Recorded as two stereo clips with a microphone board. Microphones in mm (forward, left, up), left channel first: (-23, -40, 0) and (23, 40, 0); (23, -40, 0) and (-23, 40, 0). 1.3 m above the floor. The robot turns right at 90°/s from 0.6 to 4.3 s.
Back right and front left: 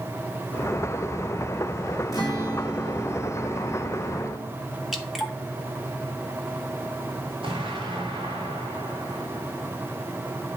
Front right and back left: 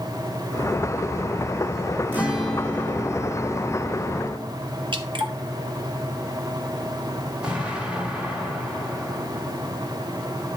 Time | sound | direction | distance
2.1 | a guitar | 175° right | 2.5 m
4.9 | dripping | 150° left | 1.5 m
7.4 | an explosion | 40° left | 3 m